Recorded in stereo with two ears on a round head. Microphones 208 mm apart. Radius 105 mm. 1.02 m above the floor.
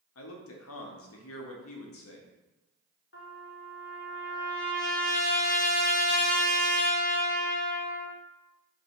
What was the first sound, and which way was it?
A man speaking, 65° left (ahead or behind).